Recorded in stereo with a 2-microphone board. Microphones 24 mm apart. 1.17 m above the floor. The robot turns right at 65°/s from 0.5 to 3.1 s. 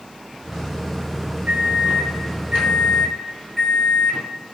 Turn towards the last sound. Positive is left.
turn(degrees=0)